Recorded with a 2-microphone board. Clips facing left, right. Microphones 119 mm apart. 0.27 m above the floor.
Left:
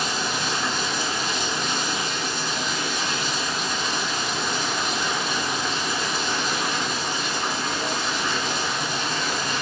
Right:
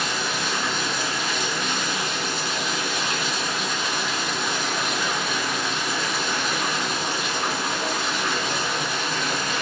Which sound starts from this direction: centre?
Running water, at 0.0 s.